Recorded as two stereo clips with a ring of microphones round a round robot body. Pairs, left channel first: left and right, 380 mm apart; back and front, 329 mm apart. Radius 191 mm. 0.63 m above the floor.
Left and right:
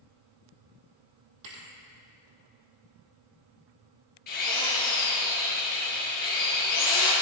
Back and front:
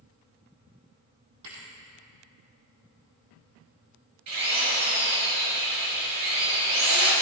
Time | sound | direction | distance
1.4 | a thud | 50° right | 2.0 m
4.3 | a drill | 20° left | 5 m